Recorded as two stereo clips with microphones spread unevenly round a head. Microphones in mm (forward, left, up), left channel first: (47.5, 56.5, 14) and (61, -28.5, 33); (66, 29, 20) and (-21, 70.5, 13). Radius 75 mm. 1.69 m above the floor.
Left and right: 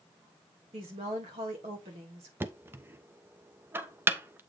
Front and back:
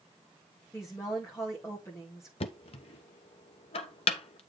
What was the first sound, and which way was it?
A woman speaking, 100° right.